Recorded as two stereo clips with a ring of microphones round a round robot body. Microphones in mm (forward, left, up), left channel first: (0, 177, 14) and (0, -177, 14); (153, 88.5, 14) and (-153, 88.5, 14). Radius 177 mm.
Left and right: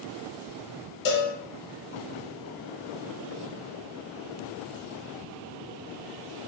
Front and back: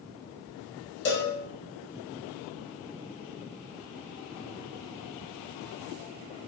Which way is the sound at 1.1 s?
55° left.